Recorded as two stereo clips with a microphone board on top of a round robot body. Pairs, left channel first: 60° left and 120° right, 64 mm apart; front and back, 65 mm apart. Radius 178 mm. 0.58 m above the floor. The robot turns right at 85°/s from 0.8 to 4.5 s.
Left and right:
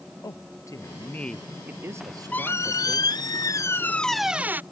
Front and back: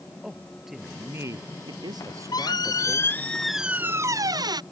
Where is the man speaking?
95° left; by 3.0 s 80° right.